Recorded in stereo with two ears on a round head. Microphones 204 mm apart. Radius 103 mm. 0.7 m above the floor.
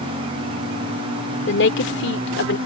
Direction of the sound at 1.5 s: 55° left (ahead or behind).